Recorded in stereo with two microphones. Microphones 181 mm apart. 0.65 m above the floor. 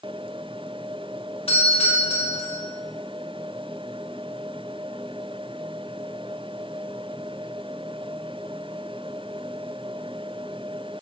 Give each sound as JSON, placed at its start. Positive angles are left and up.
{"t": 1.5, "sound": "a doorbell", "side_deg": 30, "distance_m": 1.9}